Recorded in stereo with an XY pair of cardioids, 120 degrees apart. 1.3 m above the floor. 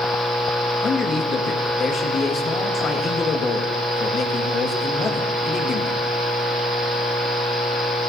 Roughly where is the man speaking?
Ahead left.